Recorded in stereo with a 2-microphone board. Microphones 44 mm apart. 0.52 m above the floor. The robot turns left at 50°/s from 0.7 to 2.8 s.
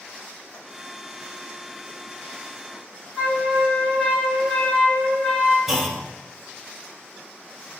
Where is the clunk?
10° right (ahead or behind), 0.5 m.